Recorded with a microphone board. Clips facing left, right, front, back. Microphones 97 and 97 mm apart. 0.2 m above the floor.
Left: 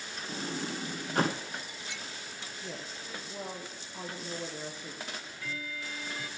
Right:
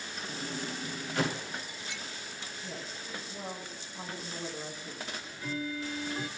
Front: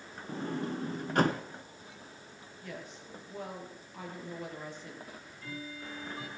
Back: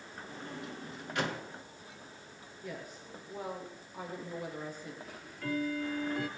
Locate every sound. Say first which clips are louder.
0.3 s a sliding door: left 3 dB, front 9 dB; 45° left, 1.1 m
2.6 s a woman speaking: left 1 dB, back 1 dB; 100° left, 5.5 m
5.0 s ticking: right 2 dB, back 7 dB; 155° right, 1.2 m